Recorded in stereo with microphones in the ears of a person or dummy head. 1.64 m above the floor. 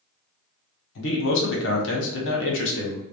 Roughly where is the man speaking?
Left.